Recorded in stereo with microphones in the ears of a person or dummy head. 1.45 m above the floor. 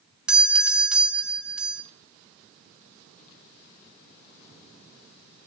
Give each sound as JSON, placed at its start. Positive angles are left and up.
{"t": 0.3, "sound": "a doorbell", "side_deg": -5, "distance_m": 0.8}